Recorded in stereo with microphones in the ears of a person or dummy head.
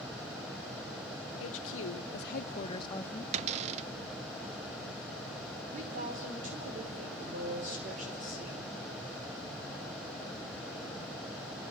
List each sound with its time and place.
1.4 s a woman speaking: 85° left, 1.4 m; by 3.2 s 5° left (ahead or behind), 0.9 m
3.3 s a cupboard door: 40° right (ahead or behind), 0.6 m
5.7 s a woman speaking: 45° right (ahead or behind), 6 m